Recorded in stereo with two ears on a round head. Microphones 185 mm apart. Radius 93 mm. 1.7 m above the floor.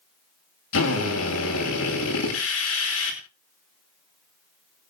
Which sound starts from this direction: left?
A drill, at 0.7 s.